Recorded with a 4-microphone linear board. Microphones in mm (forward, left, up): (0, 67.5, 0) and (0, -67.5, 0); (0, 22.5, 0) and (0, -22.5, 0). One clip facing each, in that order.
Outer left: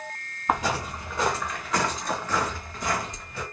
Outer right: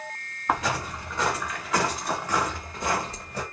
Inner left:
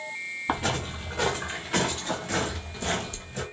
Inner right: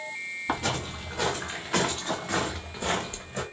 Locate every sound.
0.5 s footsteps: 15° left (ahead or behind), 1.8 m; by 3.4 s 40° right (ahead or behind), 0.9 m